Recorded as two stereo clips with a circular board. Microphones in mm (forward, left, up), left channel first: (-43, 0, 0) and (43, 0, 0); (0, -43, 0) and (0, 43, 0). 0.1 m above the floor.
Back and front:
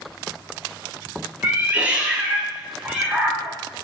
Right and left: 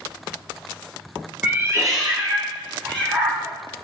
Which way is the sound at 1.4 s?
45° left.